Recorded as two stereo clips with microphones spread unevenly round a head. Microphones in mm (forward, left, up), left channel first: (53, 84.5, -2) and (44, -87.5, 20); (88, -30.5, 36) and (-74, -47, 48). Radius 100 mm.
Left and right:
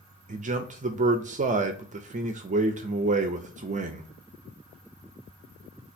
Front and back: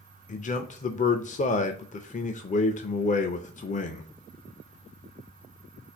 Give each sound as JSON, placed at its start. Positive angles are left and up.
{"t": 0.3, "sound": "a man speaking", "azimuth_deg": -40, "distance_m": 0.5}